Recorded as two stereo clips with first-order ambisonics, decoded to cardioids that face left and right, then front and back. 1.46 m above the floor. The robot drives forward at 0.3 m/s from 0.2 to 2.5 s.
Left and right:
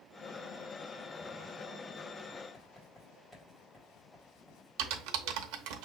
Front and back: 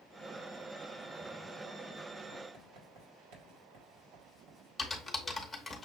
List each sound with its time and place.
2.5 s writing: 170° left, 2 m
4.8 s typing on a keyboard: 85° right, 0.8 m